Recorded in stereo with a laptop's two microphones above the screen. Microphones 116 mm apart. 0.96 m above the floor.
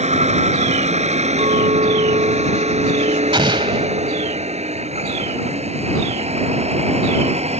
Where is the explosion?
45° right (ahead or behind).